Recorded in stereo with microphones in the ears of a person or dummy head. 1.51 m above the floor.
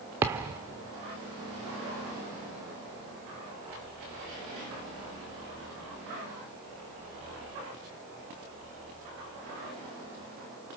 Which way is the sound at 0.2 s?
10° right (ahead or behind).